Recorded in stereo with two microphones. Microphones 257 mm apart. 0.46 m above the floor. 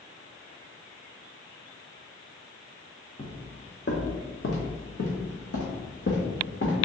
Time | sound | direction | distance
3.2 | footsteps | 35° left (ahead or behind) | 1.5 m